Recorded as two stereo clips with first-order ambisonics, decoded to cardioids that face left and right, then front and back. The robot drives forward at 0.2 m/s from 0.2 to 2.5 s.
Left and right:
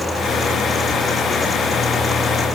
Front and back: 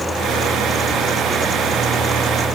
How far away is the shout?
I don't hear a shout.